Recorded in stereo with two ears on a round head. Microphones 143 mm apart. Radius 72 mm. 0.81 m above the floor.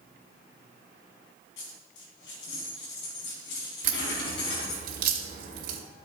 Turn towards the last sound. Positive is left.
turn(degrees=-60)  # may be behind; listen again after turning